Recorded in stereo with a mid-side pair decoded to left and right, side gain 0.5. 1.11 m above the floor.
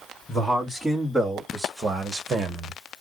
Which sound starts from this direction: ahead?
A man speaking, at 0.3 s.